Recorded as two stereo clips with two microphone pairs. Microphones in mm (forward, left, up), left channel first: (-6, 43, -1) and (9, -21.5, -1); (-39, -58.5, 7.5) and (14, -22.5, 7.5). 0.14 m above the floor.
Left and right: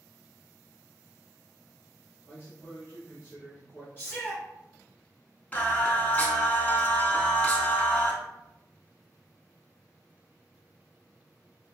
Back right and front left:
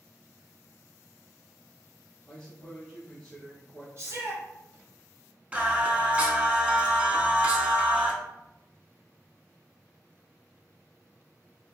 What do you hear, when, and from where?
2.3 s a man speaking: 135° left, 1.3 m
4.0 s a shout: 55° left, 1.5 m
5.5 s singing: 80° left, 0.5 m